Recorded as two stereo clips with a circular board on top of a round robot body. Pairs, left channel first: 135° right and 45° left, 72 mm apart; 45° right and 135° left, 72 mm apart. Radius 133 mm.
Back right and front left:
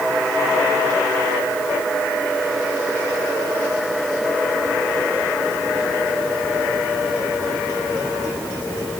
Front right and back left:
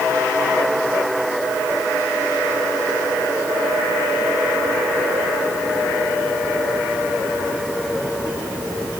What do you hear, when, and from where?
Only background noise.